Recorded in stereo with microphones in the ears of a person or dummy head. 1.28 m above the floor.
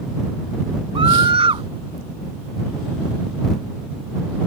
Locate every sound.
0.9 s a scream: 30° right (ahead or behind)